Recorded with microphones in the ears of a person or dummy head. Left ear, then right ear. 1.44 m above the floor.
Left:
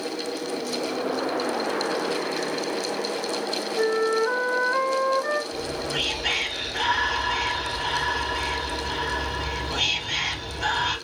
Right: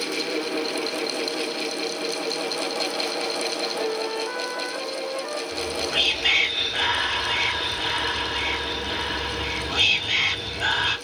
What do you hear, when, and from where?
3.8 s a flute: 65° left (ahead or behind), 1.1 m
5.5 s whispering: 50° right (ahead or behind), 1.7 m